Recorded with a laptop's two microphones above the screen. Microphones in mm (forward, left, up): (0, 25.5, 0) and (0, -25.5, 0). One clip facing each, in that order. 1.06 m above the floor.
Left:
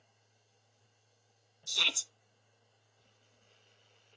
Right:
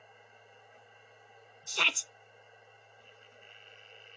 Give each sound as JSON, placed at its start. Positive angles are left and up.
{"t": 0.0, "sound": "a machine running", "side_deg": -75}
{"t": 1.7, "sound": "a shout", "side_deg": -40}